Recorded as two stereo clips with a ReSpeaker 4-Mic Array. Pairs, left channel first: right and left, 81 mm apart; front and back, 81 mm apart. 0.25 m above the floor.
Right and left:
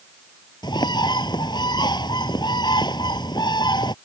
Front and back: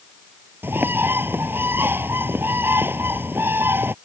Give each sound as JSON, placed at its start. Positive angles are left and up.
{"t": 0.6, "sound": "a bird", "azimuth_deg": -115}